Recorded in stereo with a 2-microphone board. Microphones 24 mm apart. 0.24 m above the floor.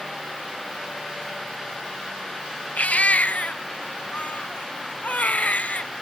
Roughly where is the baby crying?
Left.